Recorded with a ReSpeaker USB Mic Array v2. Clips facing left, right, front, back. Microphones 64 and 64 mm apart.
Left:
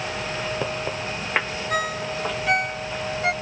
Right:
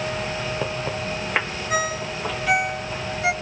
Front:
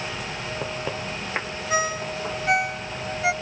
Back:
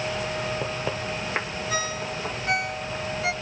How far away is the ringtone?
About 1.0 m.